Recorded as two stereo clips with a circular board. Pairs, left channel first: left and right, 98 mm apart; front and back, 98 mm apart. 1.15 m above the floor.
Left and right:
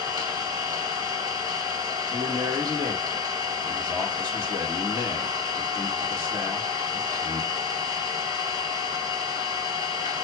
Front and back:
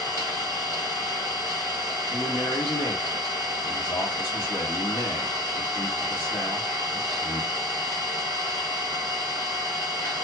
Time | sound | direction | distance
0.0 | an engine running | 55° right | 2.5 m
2.1 | a man speaking | 35° right | 1.7 m